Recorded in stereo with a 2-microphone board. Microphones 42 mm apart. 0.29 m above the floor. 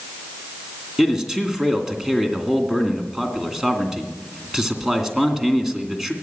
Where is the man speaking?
10° right (ahead or behind), 2.5 m.